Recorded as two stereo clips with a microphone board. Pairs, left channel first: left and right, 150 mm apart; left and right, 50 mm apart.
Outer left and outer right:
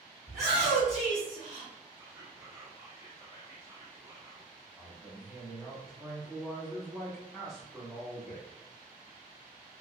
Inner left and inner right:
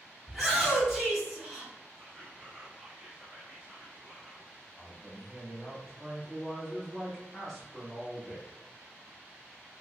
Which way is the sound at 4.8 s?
5° right (ahead or behind).